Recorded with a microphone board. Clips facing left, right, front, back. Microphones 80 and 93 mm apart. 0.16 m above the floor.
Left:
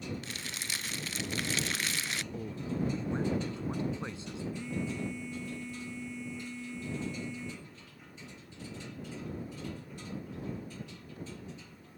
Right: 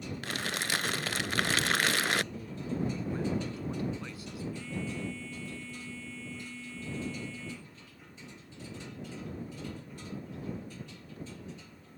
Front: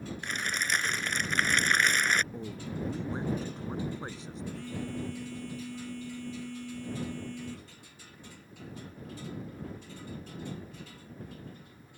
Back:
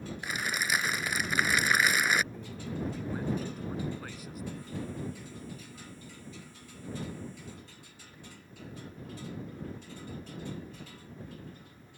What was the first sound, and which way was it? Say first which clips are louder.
Crumpling: right 7 dB, back 1 dB; 95° right.